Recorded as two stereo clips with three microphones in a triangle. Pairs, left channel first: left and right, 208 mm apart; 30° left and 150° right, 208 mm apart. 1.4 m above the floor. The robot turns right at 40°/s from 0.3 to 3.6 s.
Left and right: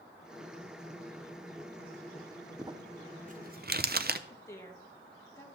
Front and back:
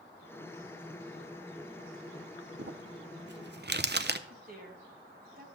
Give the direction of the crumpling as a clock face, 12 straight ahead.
5 o'clock.